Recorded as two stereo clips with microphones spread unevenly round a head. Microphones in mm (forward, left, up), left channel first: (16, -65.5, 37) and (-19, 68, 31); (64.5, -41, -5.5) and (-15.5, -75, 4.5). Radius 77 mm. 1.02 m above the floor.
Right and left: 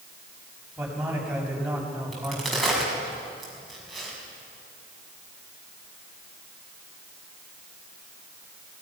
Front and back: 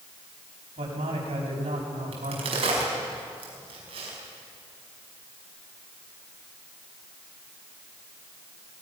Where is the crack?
165° right, 6 m.